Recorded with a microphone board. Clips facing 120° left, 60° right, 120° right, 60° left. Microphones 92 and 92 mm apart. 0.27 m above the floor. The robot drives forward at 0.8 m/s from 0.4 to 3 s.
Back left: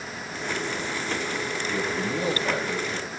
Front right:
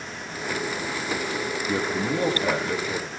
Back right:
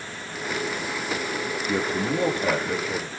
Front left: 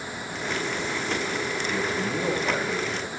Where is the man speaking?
95° right, 8 m; by 3.1 s 100° right, 8.5 m.